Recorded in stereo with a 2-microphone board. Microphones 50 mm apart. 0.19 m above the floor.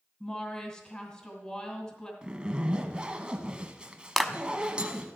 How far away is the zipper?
About 1.2 m.